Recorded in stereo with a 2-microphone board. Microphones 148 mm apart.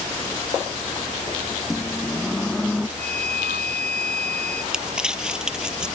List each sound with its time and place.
1.6 s a microwave: centre (ahead or behind)
3.0 s a flute: 60° right (ahead or behind)
4.7 s crumpling: 5° right (ahead or behind)